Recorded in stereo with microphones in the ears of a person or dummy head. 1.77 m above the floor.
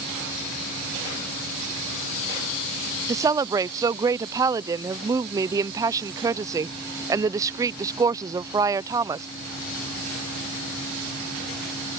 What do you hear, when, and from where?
3.1 s a woman speaking: 15° right (ahead or behind)